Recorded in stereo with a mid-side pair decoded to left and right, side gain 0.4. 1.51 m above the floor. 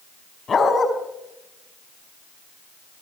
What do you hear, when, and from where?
0.5 s a dog barking: 40° left, 5.5 m